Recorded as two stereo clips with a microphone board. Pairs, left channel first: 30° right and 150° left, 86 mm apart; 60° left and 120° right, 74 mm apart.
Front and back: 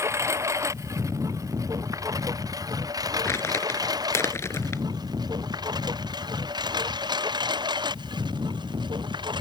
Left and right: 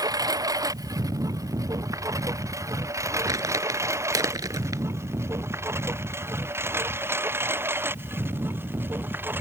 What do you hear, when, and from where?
0.0 s a lawn mower: 155° right; by 9.4 s straight behind
3.2 s crumpling: 85° right